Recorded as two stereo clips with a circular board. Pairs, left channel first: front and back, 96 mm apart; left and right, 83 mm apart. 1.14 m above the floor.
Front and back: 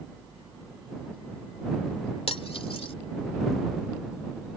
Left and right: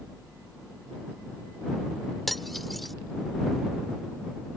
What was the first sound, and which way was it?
Cutlery clinking, straight ahead.